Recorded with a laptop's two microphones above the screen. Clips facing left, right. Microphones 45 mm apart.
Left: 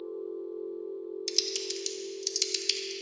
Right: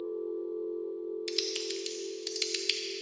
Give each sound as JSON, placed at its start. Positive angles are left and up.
{"t": 0.0, "sound": "a machine running", "side_deg": -65, "distance_m": 1.6}
{"t": 1.3, "sound": "typing on a keyboard", "side_deg": -15, "distance_m": 0.5}